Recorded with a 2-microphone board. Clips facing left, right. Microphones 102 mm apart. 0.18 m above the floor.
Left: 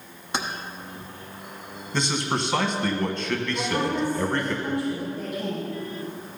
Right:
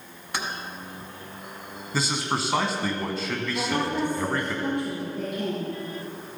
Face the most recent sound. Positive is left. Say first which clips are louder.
# right 1 dB
turn(degrees=-60)  # may be behind; listen again after turning